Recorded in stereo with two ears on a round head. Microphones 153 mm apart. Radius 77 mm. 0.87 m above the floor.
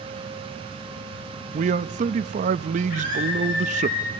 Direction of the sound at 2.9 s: 55° left (ahead or behind).